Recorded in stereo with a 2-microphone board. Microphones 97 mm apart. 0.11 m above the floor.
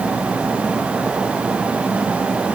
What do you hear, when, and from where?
Only background noise.